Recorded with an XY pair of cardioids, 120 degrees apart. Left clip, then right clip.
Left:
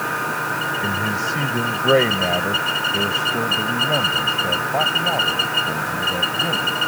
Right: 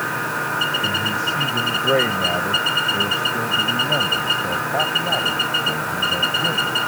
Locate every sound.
0.8 s a man speaking: 25° left; by 6.8 s 5° left